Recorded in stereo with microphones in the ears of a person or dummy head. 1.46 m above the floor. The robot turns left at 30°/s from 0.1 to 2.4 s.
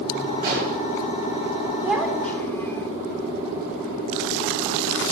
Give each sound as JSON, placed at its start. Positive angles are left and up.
{"t": 0.4, "sound": "an explosion", "side_deg": -45, "distance_m": 8.5}
{"t": 1.8, "sound": "a child speaking", "side_deg": -5, "distance_m": 2.5}